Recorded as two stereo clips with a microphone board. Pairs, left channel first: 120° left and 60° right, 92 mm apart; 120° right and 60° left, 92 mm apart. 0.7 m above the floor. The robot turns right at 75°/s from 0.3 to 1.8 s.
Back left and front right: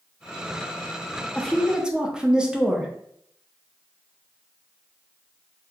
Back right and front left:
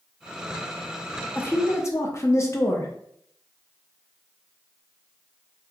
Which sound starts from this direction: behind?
A woman speaking, at 1.4 s.